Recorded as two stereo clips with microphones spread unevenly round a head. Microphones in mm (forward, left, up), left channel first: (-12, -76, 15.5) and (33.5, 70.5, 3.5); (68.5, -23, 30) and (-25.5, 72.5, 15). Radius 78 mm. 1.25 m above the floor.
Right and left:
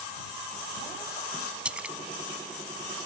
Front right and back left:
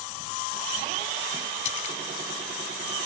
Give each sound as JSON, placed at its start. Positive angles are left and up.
{"t": 1.6, "sound": "a splash", "azimuth_deg": -10}